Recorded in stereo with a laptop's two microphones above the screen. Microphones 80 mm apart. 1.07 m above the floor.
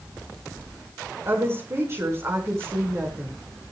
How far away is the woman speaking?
About 5 m.